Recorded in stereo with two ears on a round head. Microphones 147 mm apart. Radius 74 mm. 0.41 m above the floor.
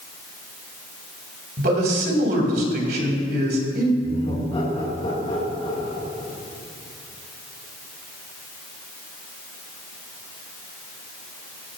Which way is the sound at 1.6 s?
65° right (ahead or behind).